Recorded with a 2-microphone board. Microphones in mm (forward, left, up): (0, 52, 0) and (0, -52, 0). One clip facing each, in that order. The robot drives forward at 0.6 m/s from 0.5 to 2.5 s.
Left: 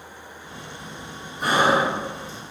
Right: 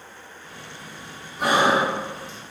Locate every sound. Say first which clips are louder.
1.4 s breathing: even; 80° right, 0.7 m; by 2.4 s 60° right (ahead or behind), 0.9 m